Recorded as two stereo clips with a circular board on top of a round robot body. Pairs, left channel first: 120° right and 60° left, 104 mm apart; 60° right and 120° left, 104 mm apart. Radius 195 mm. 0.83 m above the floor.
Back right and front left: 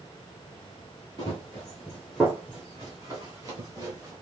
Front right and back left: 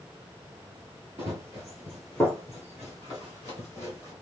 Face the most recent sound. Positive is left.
turn(degrees=5)